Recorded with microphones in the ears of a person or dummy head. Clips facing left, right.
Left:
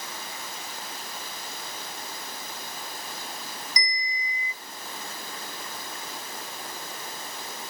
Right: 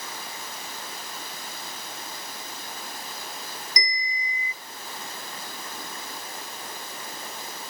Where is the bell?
40° right (ahead or behind), 2.5 m.